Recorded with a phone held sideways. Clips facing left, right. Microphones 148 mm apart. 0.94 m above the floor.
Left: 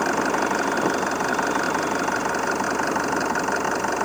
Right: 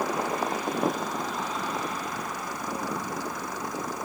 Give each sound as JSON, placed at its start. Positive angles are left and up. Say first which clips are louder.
{"t": 0.0, "sound": "an engine running", "louder": "left 6 dB", "side_deg": 90}